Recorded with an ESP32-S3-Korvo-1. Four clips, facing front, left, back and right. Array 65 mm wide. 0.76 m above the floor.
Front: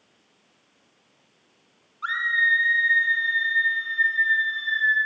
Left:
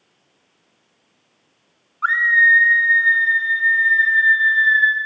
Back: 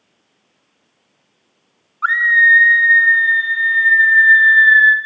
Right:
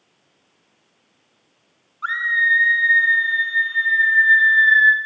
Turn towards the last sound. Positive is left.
turn(degrees=-175)